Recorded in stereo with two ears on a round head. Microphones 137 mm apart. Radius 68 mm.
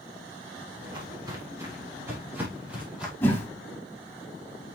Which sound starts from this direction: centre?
A whoosh, at 3.2 s.